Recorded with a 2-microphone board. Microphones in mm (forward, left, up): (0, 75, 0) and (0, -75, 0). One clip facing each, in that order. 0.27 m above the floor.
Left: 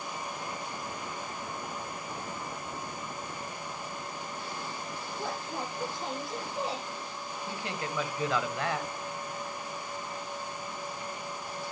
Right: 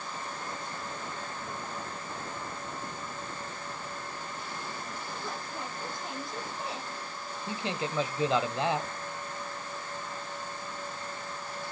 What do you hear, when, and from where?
5.2 s a woman speaking: 80° left, 9 m
7.5 s a man speaking: 20° right (ahead or behind), 1.0 m